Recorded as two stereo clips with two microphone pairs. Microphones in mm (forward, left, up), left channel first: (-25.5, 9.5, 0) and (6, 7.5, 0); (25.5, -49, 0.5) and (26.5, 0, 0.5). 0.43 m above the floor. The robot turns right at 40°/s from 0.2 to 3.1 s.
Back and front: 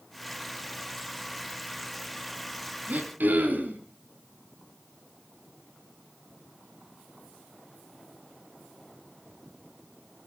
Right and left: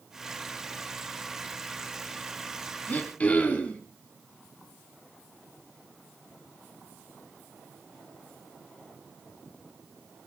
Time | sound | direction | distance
2.9 | throat clearing | 35° right | 3.5 m